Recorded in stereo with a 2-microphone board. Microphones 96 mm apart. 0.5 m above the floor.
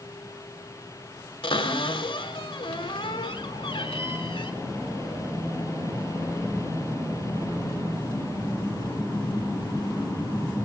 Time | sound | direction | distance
1.4 | a cupboard door | 70° left (ahead or behind) | 1.5 m